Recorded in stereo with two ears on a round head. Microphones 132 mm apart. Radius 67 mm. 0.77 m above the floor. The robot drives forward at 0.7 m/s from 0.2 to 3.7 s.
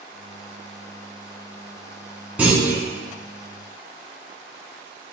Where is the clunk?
10° right (ahead or behind), 0.9 m.